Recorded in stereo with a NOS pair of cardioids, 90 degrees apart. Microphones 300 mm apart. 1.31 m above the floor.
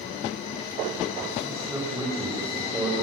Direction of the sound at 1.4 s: 10° right.